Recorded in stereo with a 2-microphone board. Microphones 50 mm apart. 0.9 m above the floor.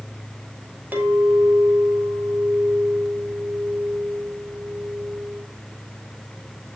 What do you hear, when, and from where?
0.9 s a clink: 35° right (ahead or behind), 3.5 m